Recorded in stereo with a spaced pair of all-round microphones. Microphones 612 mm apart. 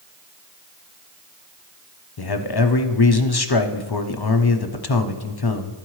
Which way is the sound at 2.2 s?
40° left (ahead or behind).